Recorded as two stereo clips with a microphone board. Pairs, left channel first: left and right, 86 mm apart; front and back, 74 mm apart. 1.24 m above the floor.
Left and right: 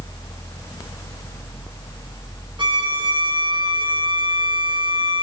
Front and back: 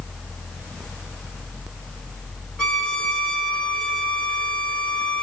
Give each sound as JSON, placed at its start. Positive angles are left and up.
{"t": 2.6, "sound": "a violin", "azimuth_deg": -80, "distance_m": 1.6}